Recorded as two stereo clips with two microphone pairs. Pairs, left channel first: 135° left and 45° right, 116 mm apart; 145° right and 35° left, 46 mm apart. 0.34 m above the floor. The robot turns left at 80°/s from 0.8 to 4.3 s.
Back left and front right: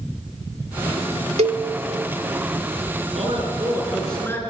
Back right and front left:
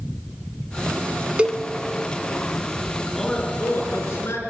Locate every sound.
1.4 s a cowbell: 30° right, 0.8 m; by 1.6 s 50° right, 0.8 m
3.1 s a man speaking: 60° right, 4.5 m; by 4.4 s 155° right, 4.5 m